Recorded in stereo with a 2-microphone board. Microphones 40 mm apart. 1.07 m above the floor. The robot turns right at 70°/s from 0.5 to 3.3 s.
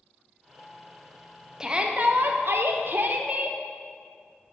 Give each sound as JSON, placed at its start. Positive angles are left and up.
{"t": 1.6, "sound": "a shout", "azimuth_deg": -160, "distance_m": 0.5}